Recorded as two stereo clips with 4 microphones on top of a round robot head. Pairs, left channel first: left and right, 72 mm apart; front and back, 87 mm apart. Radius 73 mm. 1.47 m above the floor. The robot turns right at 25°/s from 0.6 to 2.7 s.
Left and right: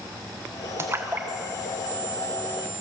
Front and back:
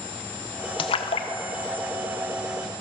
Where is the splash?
30° right, 1.3 m; by 1.3 s 20° right, 1.3 m.